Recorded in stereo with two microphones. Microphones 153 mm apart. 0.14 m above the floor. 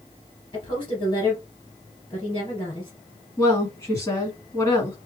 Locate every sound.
0.5 s a woman speaking: 30° left (ahead or behind), 2 m
3.4 s a woman speaking: 20° left (ahead or behind), 1.7 m